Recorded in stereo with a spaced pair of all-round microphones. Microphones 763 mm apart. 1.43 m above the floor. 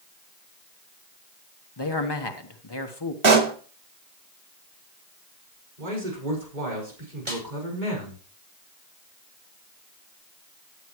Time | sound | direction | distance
1.8 | a man speaking | 35° left (ahead or behind) | 1.3 m
3.2 | a pop | 40° right (ahead or behind) | 1.0 m
5.8 | a man speaking | 85° right | 5.5 m
7.3 | a snare drum | 75° right (ahead or behind) | 5.5 m